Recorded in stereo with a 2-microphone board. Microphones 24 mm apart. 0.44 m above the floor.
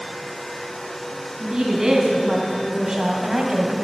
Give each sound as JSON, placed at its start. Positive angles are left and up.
{"t": 1.4, "sound": "a woman speaking", "side_deg": -25, "distance_m": 3.5}